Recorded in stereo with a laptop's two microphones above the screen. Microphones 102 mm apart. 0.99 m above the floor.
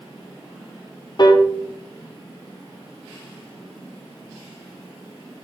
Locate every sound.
1.2 s a piano: 45° left (ahead or behind), 0.6 m